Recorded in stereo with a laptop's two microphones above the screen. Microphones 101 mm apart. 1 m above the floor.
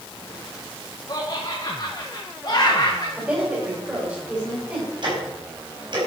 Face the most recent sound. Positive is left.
turn(degrees=-50)  # may be behind; listen again after turning